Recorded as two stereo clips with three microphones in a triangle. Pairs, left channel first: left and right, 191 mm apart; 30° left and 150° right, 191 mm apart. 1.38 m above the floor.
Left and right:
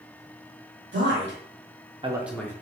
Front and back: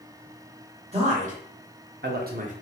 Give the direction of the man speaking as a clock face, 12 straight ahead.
3 o'clock.